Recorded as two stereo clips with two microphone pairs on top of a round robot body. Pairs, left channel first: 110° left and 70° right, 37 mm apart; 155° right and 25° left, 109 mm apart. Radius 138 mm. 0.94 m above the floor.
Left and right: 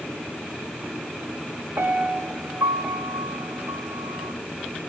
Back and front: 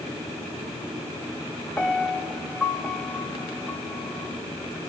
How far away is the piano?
About 3 m.